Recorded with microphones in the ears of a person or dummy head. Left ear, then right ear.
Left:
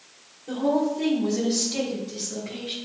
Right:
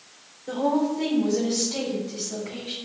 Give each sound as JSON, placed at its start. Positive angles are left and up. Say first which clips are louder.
{"t": 0.5, "sound": "a woman speaking", "louder": "even", "side_deg": -25, "distance_m": 1.5}